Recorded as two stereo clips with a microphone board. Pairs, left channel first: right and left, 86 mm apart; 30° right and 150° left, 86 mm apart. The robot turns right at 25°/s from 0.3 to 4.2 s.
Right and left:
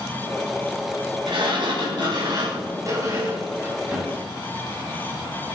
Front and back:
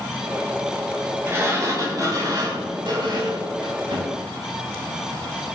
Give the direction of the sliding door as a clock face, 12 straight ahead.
9 o'clock.